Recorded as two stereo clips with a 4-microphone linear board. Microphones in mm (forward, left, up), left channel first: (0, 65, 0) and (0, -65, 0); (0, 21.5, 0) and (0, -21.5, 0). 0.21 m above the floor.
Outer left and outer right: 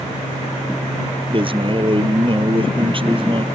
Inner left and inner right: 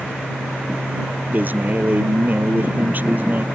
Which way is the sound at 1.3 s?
40° right (ahead or behind).